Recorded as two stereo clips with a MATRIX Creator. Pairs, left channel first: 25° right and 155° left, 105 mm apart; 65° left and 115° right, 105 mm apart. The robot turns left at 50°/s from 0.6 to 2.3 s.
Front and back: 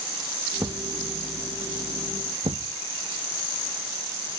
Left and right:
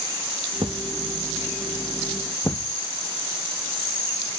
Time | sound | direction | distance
0.6 | a thud | 135° right | ?